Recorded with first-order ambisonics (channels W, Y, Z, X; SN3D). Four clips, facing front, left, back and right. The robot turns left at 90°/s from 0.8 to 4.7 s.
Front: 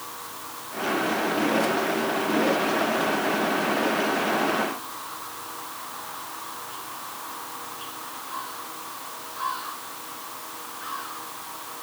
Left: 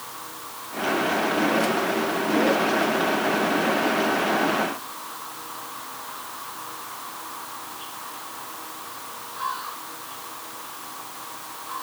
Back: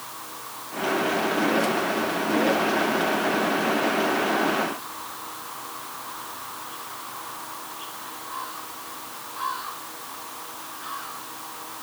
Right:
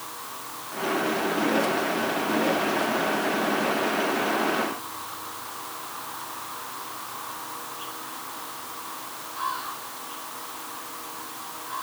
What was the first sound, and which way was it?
Only background noise.